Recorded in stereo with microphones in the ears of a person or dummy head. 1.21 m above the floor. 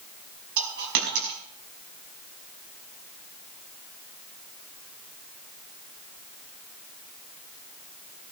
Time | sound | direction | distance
0.6 | a dropped coin | 60° right (ahead or behind) | 5.5 m